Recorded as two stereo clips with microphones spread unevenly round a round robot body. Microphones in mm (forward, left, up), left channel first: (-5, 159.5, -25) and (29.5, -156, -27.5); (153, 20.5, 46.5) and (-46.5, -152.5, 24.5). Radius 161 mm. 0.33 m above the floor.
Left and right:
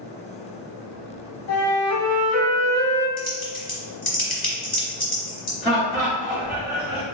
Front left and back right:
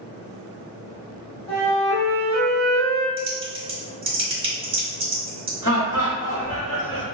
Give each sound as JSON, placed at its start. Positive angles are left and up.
{"t": 1.5, "sound": "a flute", "azimuth_deg": 115, "distance_m": 1.2}
{"t": 3.2, "sound": "typing on a keyboard", "azimuth_deg": 155, "distance_m": 0.9}
{"t": 5.6, "sound": "laughter", "azimuth_deg": 20, "distance_m": 1.3}